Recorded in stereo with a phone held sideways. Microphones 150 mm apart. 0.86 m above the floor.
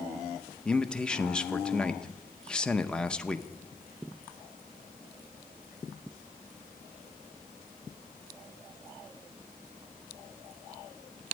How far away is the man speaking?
About 0.6 m.